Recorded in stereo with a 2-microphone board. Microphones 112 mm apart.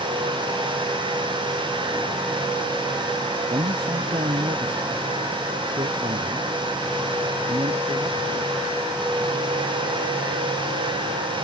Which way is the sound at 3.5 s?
55° right (ahead or behind).